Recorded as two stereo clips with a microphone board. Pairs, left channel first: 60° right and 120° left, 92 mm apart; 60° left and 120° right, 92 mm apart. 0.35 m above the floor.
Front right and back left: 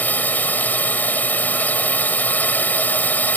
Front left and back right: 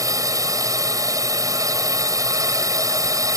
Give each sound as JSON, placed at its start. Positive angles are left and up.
{"t": 0.0, "sound": "a drone", "azimuth_deg": -120}